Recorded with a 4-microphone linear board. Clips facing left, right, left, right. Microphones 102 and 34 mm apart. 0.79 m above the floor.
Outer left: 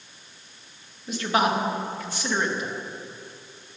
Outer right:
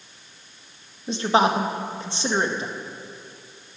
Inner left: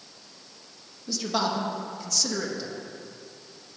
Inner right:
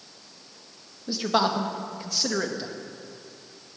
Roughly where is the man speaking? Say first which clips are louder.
Outer right 3 dB, inner right 4 dB; right.